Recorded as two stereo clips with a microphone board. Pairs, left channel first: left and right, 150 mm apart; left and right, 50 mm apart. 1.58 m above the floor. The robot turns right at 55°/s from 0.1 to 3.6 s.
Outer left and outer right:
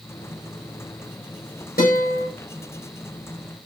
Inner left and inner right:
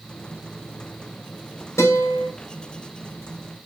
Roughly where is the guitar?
Left.